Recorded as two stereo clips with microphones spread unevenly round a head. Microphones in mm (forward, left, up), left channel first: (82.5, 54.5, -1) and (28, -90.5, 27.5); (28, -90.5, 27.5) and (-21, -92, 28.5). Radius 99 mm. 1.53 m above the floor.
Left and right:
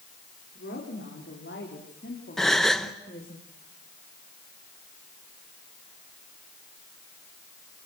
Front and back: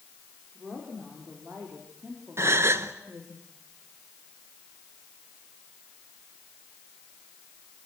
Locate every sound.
0.6 s a woman speaking: 105° left, 5 m; by 3.4 s 125° left, 3.5 m
2.4 s a gasp: 165° left, 0.8 m